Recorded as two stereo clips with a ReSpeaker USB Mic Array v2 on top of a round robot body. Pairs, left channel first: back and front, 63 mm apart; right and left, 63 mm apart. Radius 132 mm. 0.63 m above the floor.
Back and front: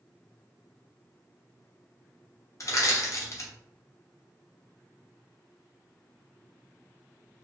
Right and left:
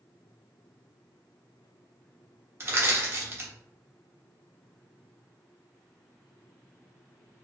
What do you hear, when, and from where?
2.6 s crushing: 140° left, 1.0 m